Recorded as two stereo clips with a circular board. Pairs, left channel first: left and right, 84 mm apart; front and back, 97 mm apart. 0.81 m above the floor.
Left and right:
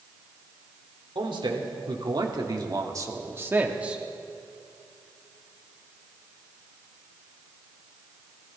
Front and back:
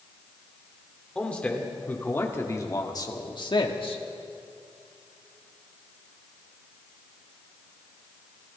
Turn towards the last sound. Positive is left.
turn(degrees=-10)